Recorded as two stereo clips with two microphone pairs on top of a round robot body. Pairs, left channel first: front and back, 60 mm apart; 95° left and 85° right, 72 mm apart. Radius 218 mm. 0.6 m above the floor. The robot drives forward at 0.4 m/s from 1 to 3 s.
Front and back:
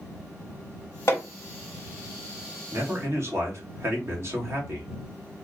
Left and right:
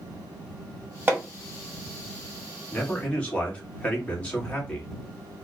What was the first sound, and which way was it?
Hammering, 30° right.